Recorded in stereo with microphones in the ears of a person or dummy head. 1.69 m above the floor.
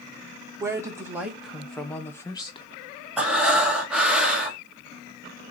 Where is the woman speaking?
20° right (ahead or behind), 1.8 m; by 2.7 s 30° left (ahead or behind), 1.3 m.